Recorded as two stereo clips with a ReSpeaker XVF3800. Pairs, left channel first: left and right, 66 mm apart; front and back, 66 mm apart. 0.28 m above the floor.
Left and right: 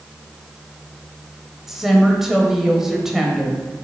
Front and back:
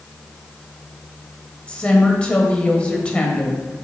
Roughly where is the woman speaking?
Ahead.